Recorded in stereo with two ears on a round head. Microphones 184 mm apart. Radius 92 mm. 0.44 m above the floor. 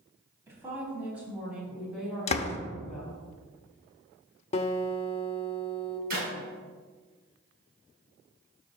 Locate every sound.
0.5 s a woman speaking: 15° right (ahead or behind), 3.5 m; by 3.2 s 5° left (ahead or behind), 4.5 m
2.3 s a door slam: 30° left (ahead or behind), 0.7 m
4.5 s a guitar: 30° left (ahead or behind), 0.8 m
6.1 s a clap: 45° right (ahead or behind), 3.5 m